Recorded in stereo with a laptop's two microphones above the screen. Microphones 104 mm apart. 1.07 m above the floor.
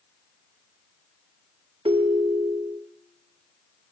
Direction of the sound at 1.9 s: 65° right (ahead or behind).